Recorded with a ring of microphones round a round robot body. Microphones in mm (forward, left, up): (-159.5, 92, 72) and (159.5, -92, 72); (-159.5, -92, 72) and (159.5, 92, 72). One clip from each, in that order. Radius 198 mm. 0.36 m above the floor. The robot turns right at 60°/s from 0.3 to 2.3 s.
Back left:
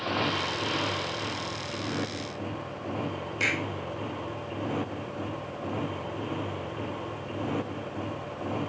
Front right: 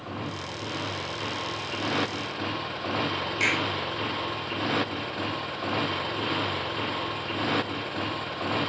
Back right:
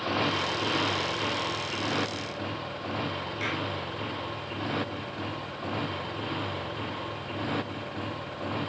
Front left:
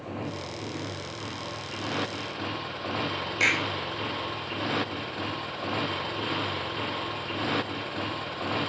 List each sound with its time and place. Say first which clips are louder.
0.0 s a motorcycle: back left 7 dB, back right 9 dB; 165° right; by 8.7 s 25° right
3.4 s a clap: front right 2 dB, front left 9 dB; 50° left